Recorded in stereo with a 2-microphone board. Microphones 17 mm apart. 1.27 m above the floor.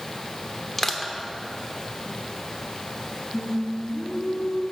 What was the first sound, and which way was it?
Crushing, 25° left (ahead or behind).